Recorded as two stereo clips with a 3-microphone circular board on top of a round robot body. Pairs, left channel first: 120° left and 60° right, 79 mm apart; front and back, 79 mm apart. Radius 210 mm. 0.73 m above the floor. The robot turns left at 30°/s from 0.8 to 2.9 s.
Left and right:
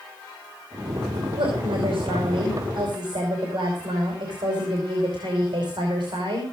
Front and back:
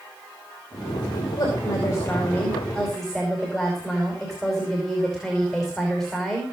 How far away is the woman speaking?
About 5 m.